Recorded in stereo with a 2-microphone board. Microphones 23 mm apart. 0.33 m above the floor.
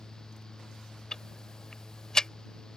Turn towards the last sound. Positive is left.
turn(degrees=30)  # may be behind; listen again after turning